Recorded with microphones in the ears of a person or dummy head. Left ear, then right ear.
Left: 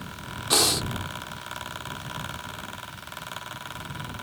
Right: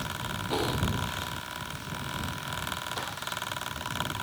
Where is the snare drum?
I don't hear a snare drum.